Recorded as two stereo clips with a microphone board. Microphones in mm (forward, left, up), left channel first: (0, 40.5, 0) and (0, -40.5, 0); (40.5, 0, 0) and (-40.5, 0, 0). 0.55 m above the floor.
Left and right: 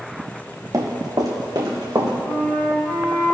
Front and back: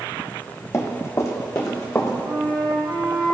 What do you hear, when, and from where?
0.7 s running footsteps: 50° right, 1.4 m; by 2.1 s 55° right, 2 m
2.2 s a flute: 150° left, 3 m